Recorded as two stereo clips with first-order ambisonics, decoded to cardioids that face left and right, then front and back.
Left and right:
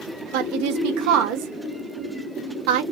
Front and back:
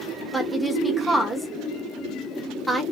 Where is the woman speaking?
90° right, 0.8 m.